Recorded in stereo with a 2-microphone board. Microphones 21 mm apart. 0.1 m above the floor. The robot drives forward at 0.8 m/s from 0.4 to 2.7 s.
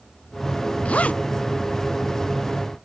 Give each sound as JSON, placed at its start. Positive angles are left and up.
{"t": 0.8, "sound": "a zipper", "side_deg": 75}